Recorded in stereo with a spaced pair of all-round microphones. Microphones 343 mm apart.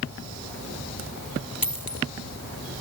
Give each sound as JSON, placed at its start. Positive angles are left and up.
{"t": 1.6, "sound": "a dropped coin", "side_deg": 90}